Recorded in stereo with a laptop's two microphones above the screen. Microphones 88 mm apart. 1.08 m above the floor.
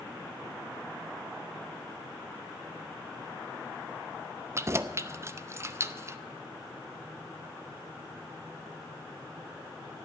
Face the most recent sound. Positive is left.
turn(degrees=-30)  # may be behind; listen again after turning